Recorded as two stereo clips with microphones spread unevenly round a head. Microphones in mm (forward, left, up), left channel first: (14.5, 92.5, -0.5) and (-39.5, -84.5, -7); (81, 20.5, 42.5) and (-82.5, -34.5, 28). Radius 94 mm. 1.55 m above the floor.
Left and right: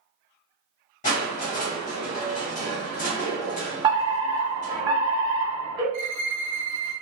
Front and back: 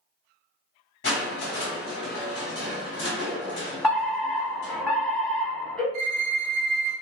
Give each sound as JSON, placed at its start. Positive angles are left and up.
{"t": 1.0, "sound": "crushing", "azimuth_deg": 35, "distance_m": 1.7}
{"t": 3.8, "sound": "a fire alarm", "azimuth_deg": -75, "distance_m": 1.0}
{"t": 5.9, "sound": "a violin", "azimuth_deg": -135, "distance_m": 0.6}